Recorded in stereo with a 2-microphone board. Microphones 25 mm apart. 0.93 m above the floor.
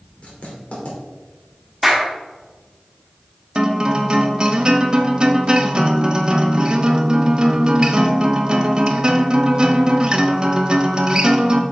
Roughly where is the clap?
Centre.